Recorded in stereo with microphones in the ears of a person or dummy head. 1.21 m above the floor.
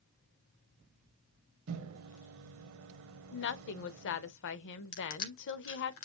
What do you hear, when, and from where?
1.7 s a microwave: 70° right (ahead or behind), 0.9 m
3.3 s a woman speaking: 55° left (ahead or behind), 0.7 m
4.9 s crushing: 70° left (ahead or behind), 1.7 m